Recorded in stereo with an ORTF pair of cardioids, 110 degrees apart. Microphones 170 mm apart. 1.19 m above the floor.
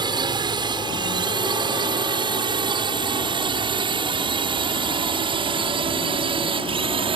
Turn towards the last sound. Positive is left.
turn(degrees=-35)